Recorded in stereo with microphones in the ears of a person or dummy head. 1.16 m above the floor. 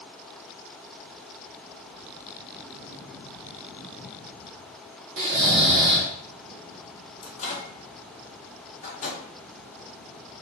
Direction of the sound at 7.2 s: 40° left (ahead or behind).